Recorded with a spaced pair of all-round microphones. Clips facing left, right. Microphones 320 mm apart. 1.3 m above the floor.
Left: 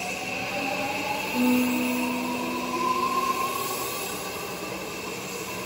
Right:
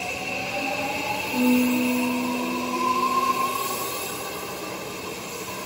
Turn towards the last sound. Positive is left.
turn(degrees=-55)  # may be behind; listen again after turning